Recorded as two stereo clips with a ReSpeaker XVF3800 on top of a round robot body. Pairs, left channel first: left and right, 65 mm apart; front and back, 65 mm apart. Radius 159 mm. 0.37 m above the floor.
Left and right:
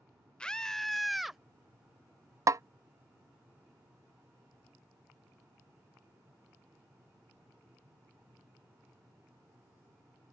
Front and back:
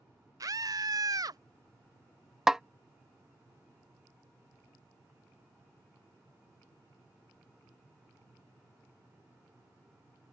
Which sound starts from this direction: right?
A snare drum, at 2.5 s.